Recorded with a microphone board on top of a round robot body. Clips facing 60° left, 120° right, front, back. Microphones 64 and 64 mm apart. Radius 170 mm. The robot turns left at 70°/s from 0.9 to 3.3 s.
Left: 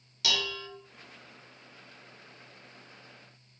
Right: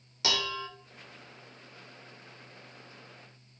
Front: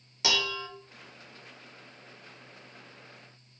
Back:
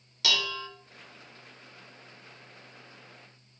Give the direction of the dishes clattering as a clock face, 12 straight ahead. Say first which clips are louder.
Right 1 dB, front 1 dB; 2 o'clock.